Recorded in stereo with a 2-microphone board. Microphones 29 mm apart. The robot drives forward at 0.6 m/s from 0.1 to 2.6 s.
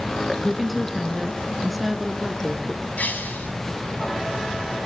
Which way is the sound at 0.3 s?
Centre (ahead or behind).